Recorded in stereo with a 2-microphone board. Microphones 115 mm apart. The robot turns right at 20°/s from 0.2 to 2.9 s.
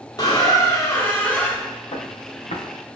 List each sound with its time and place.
0.2 s a squeak: 145° left, 0.9 m; by 1.7 s 175° left, 0.9 m
1.9 s footsteps: 65° left (ahead or behind), 1.6 m; by 2.6 s 75° left (ahead or behind), 1.6 m